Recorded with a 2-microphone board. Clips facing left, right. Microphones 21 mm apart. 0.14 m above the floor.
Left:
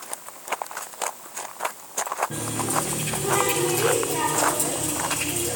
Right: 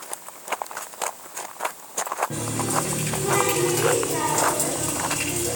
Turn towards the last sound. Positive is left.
turn(degrees=-30)  # may be behind; listen again after turning